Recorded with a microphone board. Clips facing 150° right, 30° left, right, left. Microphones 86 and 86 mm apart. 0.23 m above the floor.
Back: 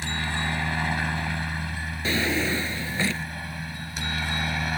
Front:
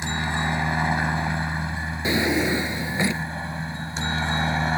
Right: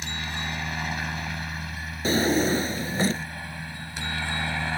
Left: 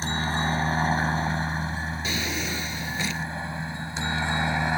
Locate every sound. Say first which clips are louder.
0.0 s a helicopter: front 3 dB, left 7 dB; 85° left; by 4.8 s 45° left
2.0 s a drawer: front 4 dB, right 12 dB; 40° right